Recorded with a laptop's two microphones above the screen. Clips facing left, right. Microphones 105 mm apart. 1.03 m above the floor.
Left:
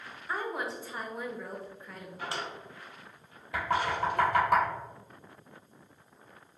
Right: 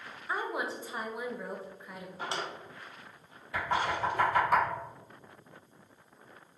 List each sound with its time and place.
0.3 s a woman speaking: 10° right (ahead or behind), 0.7 m
2.2 s a drawer: 25° right (ahead or behind), 0.6 m
3.5 s knocking: 60° left (ahead or behind), 1.6 m